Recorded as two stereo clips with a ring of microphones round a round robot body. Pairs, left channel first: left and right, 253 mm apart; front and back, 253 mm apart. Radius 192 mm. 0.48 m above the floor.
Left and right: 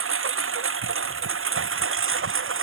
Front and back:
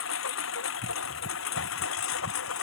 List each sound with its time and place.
0.0 s a lawn mower: 55° right